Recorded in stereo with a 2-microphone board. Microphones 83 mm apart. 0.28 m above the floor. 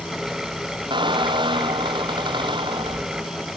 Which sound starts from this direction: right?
A squeak, at 0.9 s.